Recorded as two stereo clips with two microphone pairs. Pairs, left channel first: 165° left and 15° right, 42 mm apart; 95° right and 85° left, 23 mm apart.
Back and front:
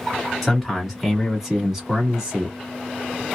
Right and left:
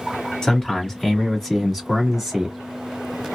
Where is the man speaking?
100° right, 1.5 m; by 2.6 s 30° left, 1.4 m.